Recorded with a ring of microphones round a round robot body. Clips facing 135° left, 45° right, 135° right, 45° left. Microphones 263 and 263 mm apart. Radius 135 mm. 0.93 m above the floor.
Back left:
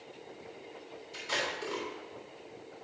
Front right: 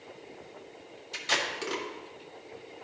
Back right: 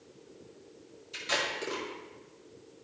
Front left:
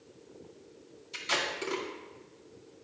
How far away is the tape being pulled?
About 1.9 m.